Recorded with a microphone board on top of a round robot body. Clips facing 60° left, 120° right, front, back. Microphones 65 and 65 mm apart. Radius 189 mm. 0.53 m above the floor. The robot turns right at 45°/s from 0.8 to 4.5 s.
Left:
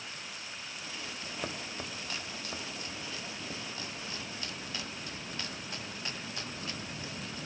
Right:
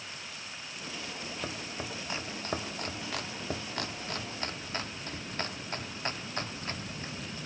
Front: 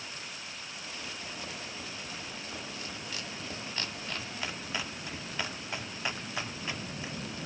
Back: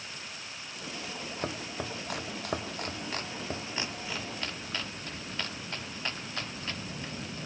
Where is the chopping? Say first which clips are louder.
Even, back 6 dB; 145° left, 1.5 m; by 7.1 s 75° right, 1.5 m.